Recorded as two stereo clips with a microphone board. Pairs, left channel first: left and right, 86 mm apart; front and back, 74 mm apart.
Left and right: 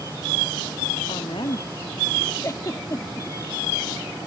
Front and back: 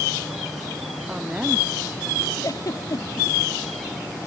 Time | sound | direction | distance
1.1 | a woman speaking | 105° left | ?
2.4 | a giggle | 40° left | ?